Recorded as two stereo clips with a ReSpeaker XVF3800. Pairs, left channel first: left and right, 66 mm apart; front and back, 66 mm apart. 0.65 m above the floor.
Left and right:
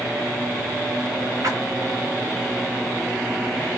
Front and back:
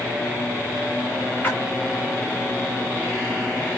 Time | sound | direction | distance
1.4 | a splash | 60° right | 2.5 m